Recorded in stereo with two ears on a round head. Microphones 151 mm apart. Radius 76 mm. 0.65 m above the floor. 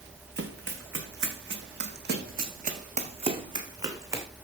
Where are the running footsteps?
70° right (ahead or behind), 3 m; by 4.2 s 15° right (ahead or behind), 2.5 m.